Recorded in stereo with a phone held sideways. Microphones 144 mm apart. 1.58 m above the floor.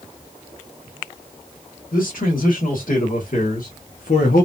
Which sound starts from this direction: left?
A man speaking, at 1.9 s.